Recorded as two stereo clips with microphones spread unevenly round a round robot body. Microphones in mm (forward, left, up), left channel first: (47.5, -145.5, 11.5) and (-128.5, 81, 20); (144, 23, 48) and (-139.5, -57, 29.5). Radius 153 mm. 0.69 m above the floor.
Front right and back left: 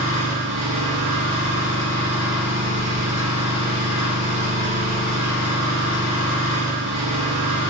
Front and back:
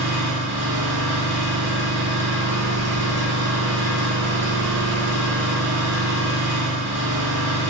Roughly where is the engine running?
Behind left.